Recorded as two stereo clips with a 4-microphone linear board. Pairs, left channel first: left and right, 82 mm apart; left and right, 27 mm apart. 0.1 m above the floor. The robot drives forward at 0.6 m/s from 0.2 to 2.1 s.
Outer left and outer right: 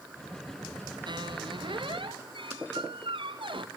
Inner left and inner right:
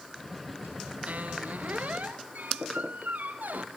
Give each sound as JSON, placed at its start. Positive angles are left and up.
{"t": 1.1, "sound": "a squeak", "side_deg": -65, "distance_m": 1.5}